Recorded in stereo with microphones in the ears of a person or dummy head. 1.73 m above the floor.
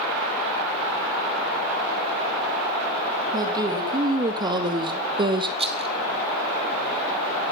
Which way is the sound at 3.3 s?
20° right (ahead or behind).